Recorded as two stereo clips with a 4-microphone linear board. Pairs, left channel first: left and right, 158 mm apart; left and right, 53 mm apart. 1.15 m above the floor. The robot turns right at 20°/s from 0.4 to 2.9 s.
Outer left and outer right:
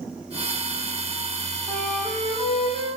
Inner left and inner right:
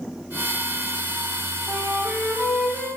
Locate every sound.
1.7 s a flute: 60° right (ahead or behind), 5.5 m; by 2.9 s 35° right (ahead or behind), 5.5 m